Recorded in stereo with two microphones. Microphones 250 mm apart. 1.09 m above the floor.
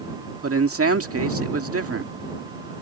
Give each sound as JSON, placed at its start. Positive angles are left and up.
{"t": 0.4, "sound": "a man speaking", "side_deg": -65}